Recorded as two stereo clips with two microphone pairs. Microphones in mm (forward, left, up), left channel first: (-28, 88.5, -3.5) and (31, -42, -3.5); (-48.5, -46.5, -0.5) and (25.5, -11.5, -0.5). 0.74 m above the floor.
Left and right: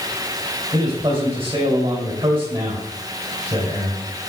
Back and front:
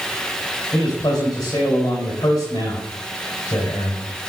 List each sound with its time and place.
0.7 s a man speaking: 115° right, 3.5 m